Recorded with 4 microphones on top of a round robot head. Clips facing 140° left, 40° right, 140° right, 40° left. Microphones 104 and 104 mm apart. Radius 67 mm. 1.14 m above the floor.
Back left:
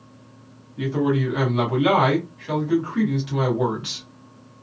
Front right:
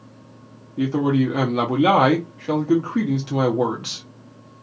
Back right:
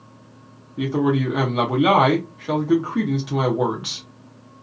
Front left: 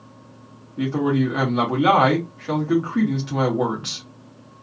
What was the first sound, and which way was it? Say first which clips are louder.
A man speaking: front right 3 dB, even; 65° right.